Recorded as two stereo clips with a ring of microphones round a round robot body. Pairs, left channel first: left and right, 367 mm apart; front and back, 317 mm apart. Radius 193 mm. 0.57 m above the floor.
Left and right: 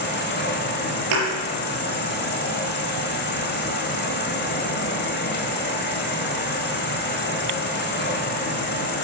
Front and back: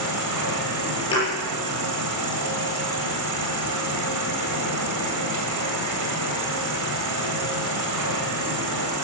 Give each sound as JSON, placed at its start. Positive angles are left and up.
{"t": 0.0, "sound": "an insect", "azimuth_deg": 155, "distance_m": 2.5}
{"t": 1.1, "sound": "a thud", "azimuth_deg": -75, "distance_m": 7.0}